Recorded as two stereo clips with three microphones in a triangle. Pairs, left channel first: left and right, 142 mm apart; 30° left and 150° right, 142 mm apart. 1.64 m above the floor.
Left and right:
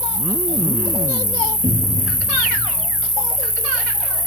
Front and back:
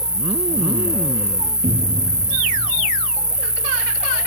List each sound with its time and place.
0.0 s an insect: 65° right, 0.7 m
1.6 s a cupboard door: 140° right, 3 m